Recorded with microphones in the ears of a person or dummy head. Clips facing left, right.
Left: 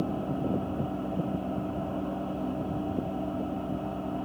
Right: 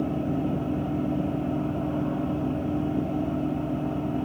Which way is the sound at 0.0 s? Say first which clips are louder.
Right 4 dB; 20° right (ahead or behind).